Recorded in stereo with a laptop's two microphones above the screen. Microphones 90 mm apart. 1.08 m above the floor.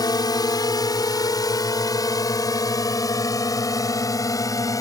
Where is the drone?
45° left (ahead or behind); by 4.8 s 40° left (ahead or behind).